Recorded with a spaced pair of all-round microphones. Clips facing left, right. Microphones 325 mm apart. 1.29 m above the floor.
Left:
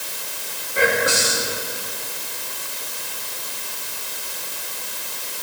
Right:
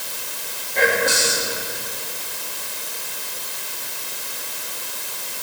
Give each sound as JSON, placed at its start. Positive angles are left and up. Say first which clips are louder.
{"t": 0.8, "sound": "whispering", "louder": "even", "side_deg": 10, "distance_m": 1.6}